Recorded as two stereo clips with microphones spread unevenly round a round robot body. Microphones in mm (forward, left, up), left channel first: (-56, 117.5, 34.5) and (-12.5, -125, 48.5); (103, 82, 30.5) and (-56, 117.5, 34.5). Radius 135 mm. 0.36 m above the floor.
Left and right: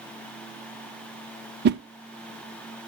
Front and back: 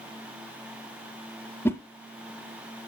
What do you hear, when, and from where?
1.6 s a whoosh: 80° right, 0.5 m